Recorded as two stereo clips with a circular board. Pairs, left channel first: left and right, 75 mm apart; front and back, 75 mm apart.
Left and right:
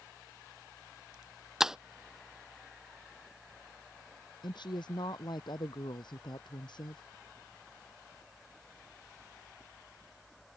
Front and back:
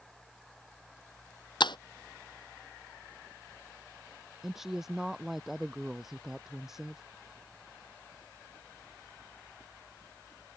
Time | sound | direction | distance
1.6 | breaking glass | 5° right | ?
4.4 | a woman speaking | 95° left | ?